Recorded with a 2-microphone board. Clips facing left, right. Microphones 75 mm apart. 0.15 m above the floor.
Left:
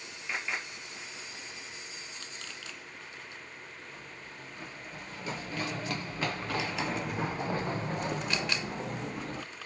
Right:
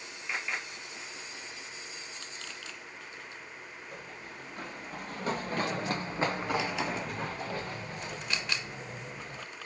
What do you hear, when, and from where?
3.9 s running footsteps: 60° right (ahead or behind), 2.0 m; by 9.4 s 65° left (ahead or behind), 1.5 m